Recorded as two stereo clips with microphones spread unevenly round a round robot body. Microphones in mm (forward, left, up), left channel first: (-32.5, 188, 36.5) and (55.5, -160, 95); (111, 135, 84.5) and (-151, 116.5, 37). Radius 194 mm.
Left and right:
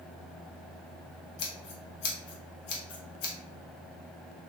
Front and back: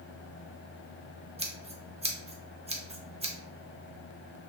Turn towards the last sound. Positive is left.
turn(degrees=120)